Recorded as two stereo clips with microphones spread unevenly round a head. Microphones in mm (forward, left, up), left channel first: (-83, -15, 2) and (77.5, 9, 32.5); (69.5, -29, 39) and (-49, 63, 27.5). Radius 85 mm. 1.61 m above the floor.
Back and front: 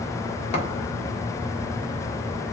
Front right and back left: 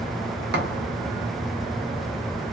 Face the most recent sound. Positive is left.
turn(degrees=130)